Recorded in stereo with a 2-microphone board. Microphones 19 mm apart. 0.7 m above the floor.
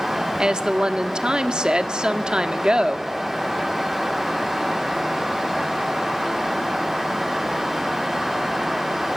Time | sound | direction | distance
0.4 | a woman speaking | 45° right (ahead or behind) | 1.2 m